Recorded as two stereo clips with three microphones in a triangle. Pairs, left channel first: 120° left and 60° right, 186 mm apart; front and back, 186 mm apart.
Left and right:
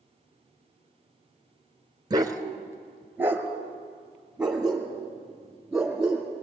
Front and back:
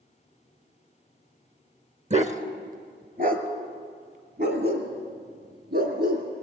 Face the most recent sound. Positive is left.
turn(degrees=-150)